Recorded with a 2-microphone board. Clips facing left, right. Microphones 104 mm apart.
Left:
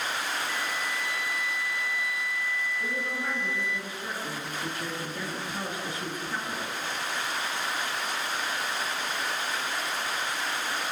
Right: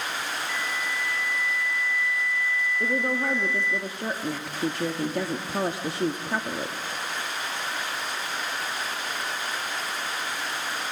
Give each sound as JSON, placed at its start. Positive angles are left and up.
{"t": 0.5, "sound": "a flute", "side_deg": 15, "distance_m": 0.8}
{"t": 2.8, "sound": "a woman speaking", "side_deg": -70, "distance_m": 1.5}